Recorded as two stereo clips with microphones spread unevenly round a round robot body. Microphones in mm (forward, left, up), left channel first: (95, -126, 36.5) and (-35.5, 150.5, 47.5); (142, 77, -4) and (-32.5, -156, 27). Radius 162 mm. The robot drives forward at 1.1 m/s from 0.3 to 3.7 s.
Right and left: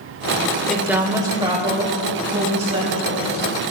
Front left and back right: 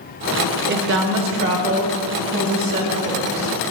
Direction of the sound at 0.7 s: 150° right.